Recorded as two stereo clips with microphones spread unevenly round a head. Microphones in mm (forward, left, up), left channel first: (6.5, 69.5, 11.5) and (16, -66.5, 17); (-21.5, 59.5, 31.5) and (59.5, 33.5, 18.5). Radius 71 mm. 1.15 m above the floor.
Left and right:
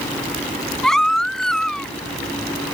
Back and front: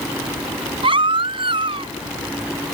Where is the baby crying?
5° left.